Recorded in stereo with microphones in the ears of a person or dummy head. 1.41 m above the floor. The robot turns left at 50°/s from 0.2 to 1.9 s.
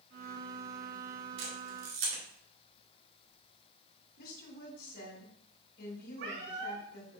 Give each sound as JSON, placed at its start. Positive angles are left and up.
{"t": 1.4, "sound": "a camera shutter", "side_deg": -70, "distance_m": 2.0}
{"t": 4.2, "sound": "a woman speaking", "side_deg": 55, "distance_m": 2.5}
{"t": 6.2, "sound": "a cat meowing", "side_deg": -70, "distance_m": 3.0}